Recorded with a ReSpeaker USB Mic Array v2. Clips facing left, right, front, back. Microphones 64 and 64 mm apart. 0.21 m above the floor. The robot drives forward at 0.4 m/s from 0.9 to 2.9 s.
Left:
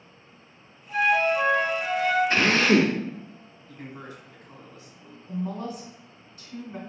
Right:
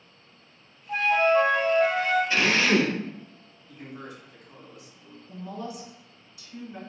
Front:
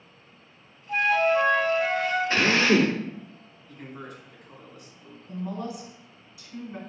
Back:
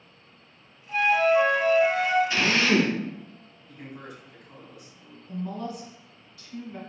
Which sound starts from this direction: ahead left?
A drill, at 2.3 s.